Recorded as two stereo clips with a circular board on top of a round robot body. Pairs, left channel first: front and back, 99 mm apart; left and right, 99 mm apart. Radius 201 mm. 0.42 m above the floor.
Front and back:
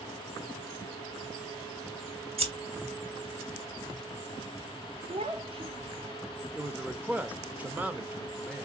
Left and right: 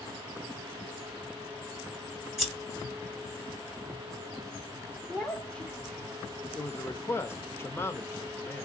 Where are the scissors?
Straight behind, 3 m.